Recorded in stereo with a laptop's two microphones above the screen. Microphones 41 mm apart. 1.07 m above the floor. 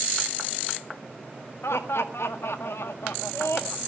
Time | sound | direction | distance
1.6 | laughter | 85° left | 1.6 m